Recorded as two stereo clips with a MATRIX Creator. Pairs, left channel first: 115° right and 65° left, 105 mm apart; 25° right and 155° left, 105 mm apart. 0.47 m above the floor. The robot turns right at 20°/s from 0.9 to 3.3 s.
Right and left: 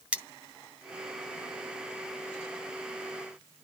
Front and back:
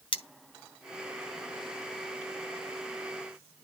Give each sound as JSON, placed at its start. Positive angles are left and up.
{"t": 0.1, "sound": "cutlery clinking", "azimuth_deg": -5, "distance_m": 0.9}